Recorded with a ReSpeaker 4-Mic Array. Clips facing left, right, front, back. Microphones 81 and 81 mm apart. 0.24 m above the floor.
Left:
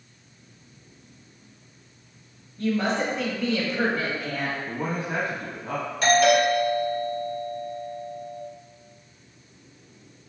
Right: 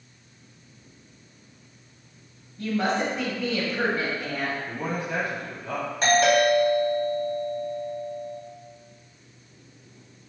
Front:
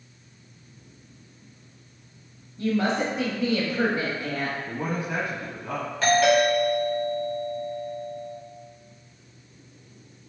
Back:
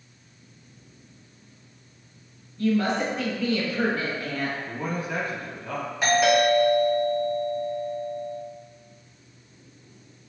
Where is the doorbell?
115° right, 1.7 m.